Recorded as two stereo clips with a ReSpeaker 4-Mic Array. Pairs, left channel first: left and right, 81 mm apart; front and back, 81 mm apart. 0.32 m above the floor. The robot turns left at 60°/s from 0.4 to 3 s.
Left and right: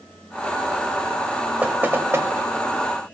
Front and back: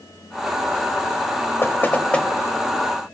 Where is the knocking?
35° right, 0.7 m; by 2.3 s 75° right, 0.7 m.